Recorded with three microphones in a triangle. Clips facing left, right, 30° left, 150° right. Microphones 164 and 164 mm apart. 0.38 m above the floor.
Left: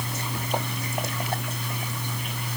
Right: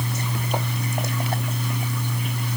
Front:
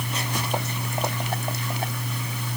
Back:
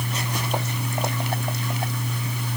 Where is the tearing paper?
No tearing paper in this recording.